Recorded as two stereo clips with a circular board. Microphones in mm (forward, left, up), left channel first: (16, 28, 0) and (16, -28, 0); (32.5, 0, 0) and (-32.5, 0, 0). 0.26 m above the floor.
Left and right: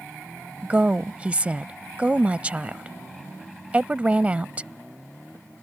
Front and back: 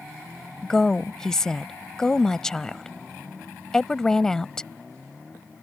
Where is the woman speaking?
65° right.